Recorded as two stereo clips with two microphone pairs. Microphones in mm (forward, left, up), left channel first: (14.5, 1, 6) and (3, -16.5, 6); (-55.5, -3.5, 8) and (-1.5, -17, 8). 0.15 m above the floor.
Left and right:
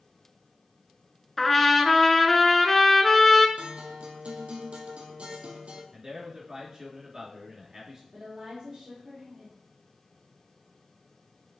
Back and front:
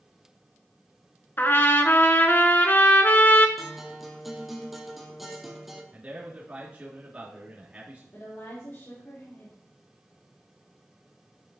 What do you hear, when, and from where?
1.4 s a trumpet: 135° left, 0.9 m
3.6 s a guitar: 100° right, 1.5 m
5.9 s a man speaking: 70° right, 2.5 m
8.1 s a woman speaking: 170° right, 3.5 m